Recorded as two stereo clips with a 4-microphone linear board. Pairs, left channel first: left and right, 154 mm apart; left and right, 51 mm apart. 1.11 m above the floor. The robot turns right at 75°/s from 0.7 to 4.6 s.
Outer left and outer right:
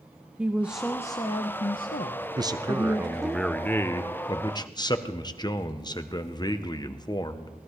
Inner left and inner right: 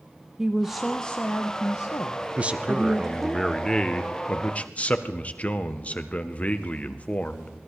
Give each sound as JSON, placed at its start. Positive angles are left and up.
{"t": 0.4, "sound": "a woman speaking", "azimuth_deg": -5, "distance_m": 0.6}
{"t": 2.4, "sound": "a man speaking", "side_deg": -25, "distance_m": 0.7}